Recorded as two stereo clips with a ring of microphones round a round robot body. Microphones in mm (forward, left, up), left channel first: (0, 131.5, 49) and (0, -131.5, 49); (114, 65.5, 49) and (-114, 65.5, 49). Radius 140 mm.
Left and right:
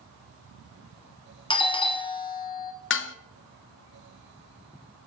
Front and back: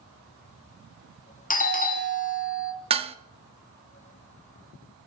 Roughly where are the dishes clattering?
Behind left.